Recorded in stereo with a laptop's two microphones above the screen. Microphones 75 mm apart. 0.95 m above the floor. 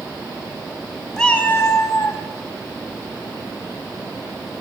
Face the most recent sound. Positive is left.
turn(degrees=40)  # may be behind; listen again after turning